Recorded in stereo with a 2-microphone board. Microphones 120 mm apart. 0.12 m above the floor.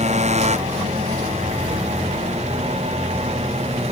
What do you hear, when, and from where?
0.0 s a motorcycle: 60° right (ahead or behind); by 3.9 s 55° right (ahead or behind)